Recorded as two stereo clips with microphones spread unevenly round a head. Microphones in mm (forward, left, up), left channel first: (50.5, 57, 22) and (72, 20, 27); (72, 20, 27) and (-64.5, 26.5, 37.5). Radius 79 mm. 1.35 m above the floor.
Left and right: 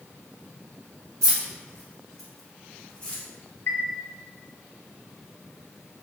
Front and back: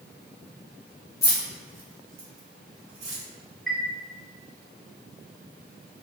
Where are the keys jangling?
75° right, 0.9 m; by 3.2 s 175° right, 2.5 m.